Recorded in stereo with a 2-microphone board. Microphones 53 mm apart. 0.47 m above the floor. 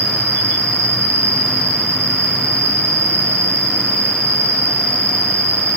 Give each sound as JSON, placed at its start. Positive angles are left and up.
{"t": 0.0, "sound": "an insect", "side_deg": -65, "distance_m": 3.5}